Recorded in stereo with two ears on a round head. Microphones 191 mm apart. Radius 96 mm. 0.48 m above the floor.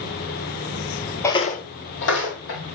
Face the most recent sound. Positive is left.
turn(degrees=55)  # may be behind; listen again after turning